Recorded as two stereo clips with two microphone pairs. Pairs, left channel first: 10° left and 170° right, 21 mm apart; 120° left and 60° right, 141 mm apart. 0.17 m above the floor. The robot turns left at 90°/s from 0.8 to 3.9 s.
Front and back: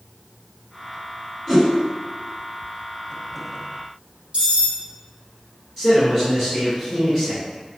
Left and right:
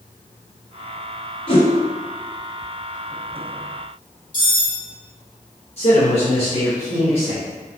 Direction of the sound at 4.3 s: 165° left.